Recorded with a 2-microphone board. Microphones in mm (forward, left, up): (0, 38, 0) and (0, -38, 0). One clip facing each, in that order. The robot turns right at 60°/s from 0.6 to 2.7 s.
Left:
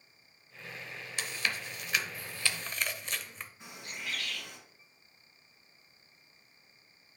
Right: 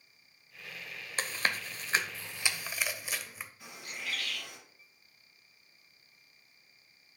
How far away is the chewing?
About 0.6 m.